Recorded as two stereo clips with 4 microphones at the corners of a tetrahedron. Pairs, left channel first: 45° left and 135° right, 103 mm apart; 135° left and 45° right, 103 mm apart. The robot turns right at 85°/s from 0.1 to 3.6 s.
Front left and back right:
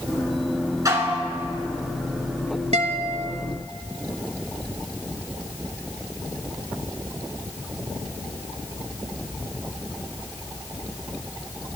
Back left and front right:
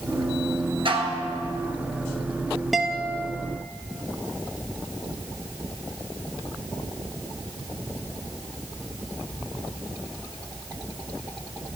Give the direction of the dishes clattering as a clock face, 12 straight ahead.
3 o'clock.